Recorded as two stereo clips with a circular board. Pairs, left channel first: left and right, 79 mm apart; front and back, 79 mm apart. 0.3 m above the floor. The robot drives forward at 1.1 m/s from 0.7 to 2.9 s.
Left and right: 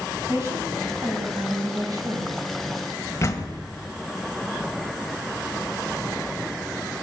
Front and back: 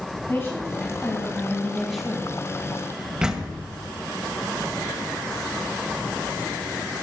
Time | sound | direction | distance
0.3 | a woman speaking | 50° right | 2.5 m
3.2 | a door slam | 110° left | 1.3 m